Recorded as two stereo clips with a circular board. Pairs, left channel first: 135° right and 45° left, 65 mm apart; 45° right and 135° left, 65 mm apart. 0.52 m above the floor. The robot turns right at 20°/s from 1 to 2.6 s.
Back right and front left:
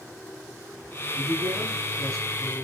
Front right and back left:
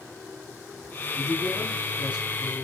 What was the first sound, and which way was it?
A man speaking, 35° left.